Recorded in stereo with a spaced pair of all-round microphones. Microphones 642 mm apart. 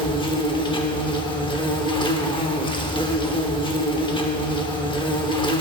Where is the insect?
10° left (ahead or behind), 0.7 m.